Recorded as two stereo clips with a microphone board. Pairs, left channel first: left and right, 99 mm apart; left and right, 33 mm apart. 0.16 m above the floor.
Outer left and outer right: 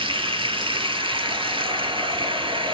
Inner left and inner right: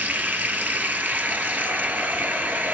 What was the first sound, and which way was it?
Running water, 65° right (ahead or behind).